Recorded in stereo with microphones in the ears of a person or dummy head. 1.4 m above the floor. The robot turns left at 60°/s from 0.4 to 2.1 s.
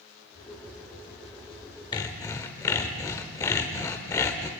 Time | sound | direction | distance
1.9 | sawing | 30° left (ahead or behind) | 1.6 m